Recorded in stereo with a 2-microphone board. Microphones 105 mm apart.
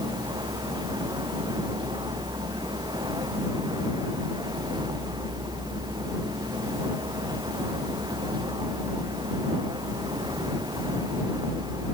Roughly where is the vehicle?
Right.